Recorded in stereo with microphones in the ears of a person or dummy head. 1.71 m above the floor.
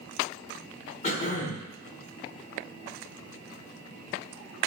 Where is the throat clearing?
50° left (ahead or behind), 1.1 m.